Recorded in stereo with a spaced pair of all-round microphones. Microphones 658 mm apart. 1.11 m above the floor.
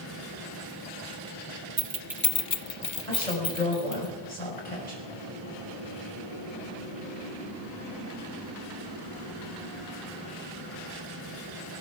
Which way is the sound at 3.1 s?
80° left.